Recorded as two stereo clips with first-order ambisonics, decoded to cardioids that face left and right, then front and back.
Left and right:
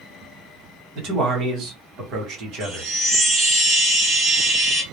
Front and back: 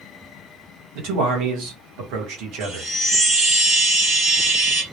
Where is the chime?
155° right, 0.8 m.